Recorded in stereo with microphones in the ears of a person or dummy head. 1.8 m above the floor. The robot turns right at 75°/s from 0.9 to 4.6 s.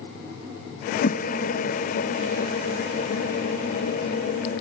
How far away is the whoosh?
About 0.6 m.